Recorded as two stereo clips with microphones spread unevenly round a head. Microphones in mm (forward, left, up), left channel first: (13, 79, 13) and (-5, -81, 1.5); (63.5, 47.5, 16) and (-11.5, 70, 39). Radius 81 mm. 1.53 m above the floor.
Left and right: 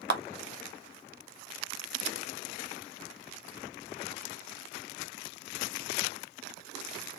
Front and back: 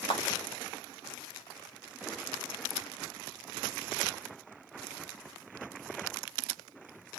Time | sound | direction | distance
0.1 | a clap | 80° right | 0.6 m